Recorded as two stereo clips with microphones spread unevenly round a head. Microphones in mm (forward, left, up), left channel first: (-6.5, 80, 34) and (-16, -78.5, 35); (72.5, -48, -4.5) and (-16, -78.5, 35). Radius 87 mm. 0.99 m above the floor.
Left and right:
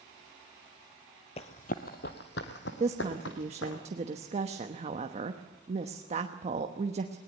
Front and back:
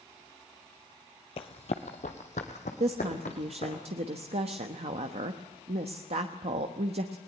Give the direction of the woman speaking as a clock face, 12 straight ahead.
5 o'clock.